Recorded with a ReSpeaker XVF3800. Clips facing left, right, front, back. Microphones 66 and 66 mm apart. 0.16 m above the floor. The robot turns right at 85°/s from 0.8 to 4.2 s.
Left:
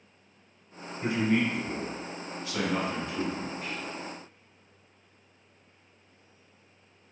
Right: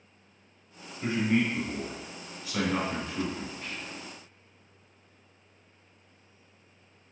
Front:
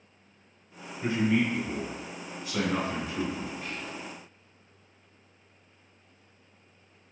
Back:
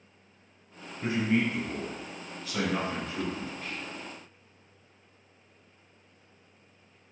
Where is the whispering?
50° left, 1.3 m; by 4.1 s 95° left, 1.3 m.